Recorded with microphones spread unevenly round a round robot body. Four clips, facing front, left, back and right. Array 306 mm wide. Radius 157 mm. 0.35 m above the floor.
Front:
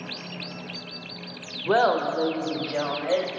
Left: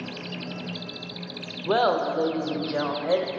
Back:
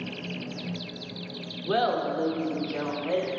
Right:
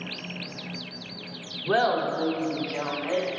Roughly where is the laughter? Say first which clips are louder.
Left 1 dB, front 4 dB; ahead.